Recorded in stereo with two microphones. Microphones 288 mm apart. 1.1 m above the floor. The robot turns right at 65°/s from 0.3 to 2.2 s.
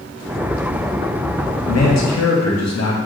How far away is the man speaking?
About 0.8 m.